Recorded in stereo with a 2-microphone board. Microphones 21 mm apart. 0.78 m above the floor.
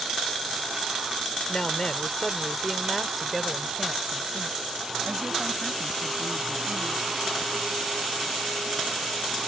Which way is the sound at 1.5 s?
45° left (ahead or behind).